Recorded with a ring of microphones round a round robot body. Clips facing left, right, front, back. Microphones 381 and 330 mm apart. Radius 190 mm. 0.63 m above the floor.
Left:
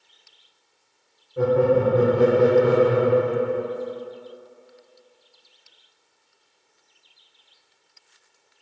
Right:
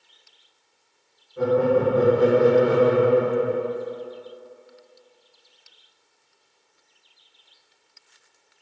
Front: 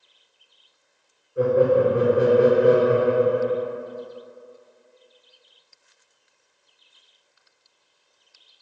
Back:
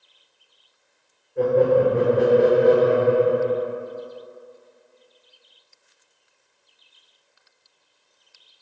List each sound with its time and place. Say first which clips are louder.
1.4 s laughter: left 1 dB, even; 80° left, 1.5 m